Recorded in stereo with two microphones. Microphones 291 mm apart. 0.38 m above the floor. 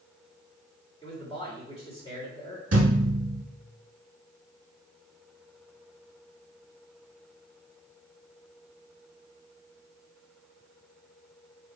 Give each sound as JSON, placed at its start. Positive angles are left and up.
{"t": 1.0, "sound": "a man speaking", "side_deg": 20, "distance_m": 1.5}
{"t": 2.7, "sound": "a thud", "side_deg": -55, "distance_m": 1.2}